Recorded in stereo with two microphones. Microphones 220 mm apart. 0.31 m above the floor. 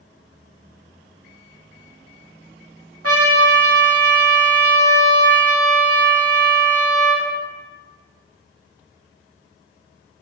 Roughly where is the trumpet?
Right.